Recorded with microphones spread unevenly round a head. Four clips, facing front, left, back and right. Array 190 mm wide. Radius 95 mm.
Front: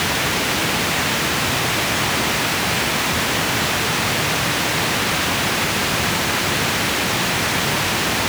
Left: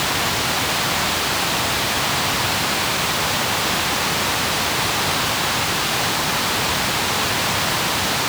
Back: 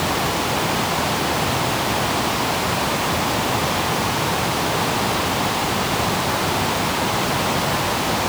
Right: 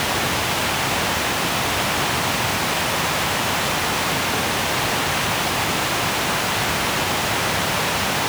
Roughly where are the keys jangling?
I don't hear keys jangling.